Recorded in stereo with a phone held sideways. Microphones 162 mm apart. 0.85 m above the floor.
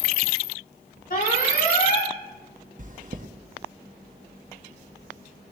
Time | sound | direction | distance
1.1 | an alarm | 55° left (ahead or behind) | 2.5 m
2.8 | chewing | 50° right (ahead or behind) | 1.0 m